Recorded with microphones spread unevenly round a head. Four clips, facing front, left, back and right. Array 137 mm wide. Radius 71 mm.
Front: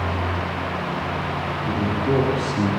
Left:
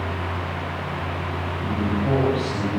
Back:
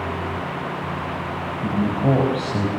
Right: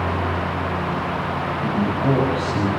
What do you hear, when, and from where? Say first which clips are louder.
1.6 s a man speaking: right 3 dB, back 3 dB; 165° right, 6.5 m